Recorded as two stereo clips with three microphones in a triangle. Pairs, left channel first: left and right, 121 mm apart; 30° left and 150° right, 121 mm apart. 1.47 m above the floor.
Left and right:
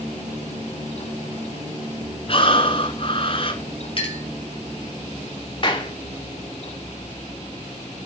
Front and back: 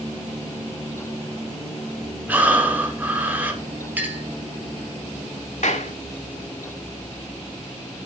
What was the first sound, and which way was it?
Breathing, 130° left.